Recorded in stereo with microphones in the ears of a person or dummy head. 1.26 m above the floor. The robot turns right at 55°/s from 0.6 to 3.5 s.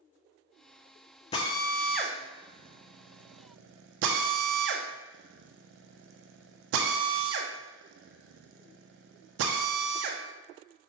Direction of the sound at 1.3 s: 30° left (ahead or behind).